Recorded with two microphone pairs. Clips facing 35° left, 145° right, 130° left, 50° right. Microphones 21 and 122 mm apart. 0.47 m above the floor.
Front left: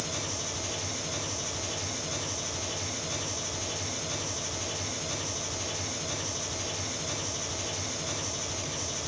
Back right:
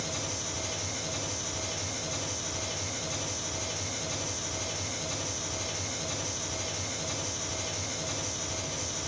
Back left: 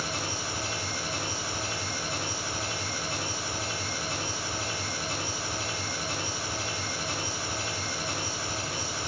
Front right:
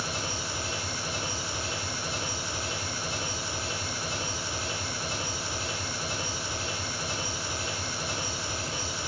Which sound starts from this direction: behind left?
An engine running, at 0.0 s.